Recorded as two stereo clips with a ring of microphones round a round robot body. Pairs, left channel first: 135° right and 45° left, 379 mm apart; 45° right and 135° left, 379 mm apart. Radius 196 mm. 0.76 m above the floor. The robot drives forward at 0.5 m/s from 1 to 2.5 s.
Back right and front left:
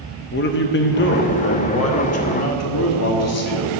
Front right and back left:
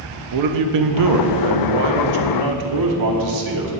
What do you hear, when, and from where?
0.3 s a man speaking: 165° left, 0.7 m; by 3.7 s 175° left, 1.4 m